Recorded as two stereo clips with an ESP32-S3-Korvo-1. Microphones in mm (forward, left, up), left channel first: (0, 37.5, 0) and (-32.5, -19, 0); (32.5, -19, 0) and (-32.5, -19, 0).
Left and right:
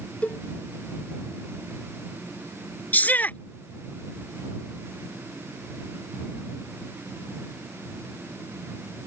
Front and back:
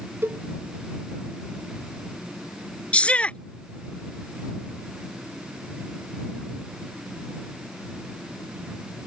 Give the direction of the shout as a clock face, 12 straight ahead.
10 o'clock.